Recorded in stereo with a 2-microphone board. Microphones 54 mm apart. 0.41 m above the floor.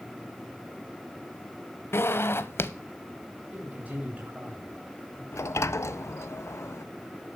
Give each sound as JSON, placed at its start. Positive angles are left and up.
{"t": 1.9, "sound": "a zipper", "side_deg": 50, "distance_m": 0.9}
{"t": 3.5, "sound": "a man speaking", "side_deg": -25, "distance_m": 3.0}
{"t": 5.3, "sound": "a sliding door", "side_deg": 65, "distance_m": 0.5}